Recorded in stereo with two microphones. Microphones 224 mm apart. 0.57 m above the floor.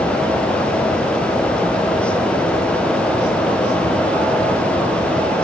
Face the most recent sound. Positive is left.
No sound to turn to.